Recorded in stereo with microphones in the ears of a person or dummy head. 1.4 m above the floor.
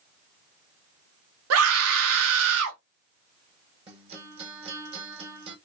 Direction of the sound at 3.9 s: 30° right (ahead or behind).